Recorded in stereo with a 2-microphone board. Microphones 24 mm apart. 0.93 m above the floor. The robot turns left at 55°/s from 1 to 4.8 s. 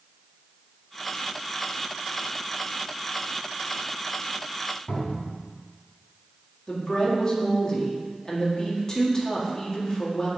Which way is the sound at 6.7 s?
30° left (ahead or behind).